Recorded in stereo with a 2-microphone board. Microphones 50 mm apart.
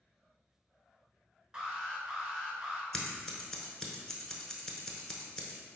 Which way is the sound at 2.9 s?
10° left (ahead or behind).